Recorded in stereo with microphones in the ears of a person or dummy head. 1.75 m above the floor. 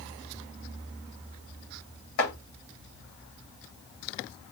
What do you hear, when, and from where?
2.2 s chopping: 65° left (ahead or behind), 1.8 m